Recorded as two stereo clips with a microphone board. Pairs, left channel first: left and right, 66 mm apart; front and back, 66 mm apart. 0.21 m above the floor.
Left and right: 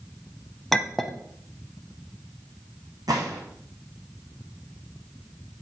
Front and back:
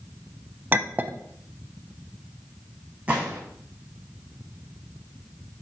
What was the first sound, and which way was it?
A clink, 175° left.